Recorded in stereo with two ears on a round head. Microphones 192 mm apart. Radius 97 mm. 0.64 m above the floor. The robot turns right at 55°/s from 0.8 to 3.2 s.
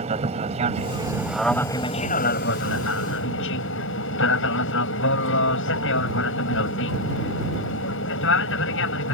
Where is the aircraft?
35° right; by 9.2 s 100° left.